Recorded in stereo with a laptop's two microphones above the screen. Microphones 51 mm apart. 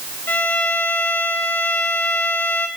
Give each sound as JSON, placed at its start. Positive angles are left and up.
{"t": 0.3, "sound": "a violin", "side_deg": 65, "distance_m": 1.1}